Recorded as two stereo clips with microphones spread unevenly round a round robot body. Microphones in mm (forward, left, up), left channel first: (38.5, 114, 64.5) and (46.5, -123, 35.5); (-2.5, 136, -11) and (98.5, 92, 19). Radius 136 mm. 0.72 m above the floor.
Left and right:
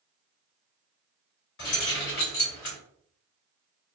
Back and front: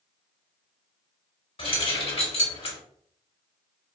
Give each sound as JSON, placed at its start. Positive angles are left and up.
{"t": 1.6, "sound": "keys jangling", "azimuth_deg": 140, "distance_m": 1.6}